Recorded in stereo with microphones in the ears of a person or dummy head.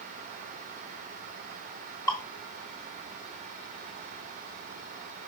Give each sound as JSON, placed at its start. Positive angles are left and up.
{"t": 2.1, "sound": "dripping", "side_deg": 20, "distance_m": 1.6}